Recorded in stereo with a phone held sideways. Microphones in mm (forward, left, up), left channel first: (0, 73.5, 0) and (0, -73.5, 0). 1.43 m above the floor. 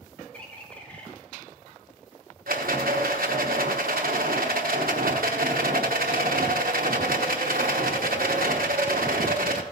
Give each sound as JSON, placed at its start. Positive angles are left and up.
{"t": 0.3, "sound": "a bird", "side_deg": 10, "distance_m": 2.5}
{"t": 2.5, "sound": "a rattle", "side_deg": -80, "distance_m": 1.0}